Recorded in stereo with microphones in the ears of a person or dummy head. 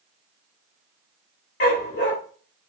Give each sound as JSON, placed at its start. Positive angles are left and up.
{"t": 1.6, "sound": "a dog barking", "side_deg": 45, "distance_m": 1.7}